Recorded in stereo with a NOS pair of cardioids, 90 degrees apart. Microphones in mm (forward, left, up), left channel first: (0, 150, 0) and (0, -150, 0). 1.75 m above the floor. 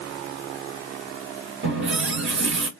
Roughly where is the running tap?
Ahead right.